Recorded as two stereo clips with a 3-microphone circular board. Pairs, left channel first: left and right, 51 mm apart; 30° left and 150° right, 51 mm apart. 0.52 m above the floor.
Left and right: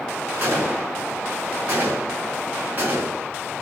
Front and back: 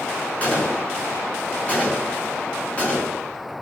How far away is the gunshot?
About 5.5 m.